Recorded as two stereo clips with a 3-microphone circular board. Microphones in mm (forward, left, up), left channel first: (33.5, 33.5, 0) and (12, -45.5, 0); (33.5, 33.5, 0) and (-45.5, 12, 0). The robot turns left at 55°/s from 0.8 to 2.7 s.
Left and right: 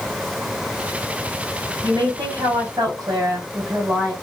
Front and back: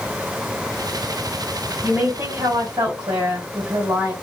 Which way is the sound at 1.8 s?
95° right.